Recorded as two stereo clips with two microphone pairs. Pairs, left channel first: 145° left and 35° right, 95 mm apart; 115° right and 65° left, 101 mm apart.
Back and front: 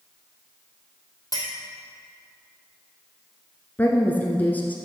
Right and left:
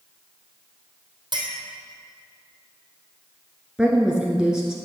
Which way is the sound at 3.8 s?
130° left.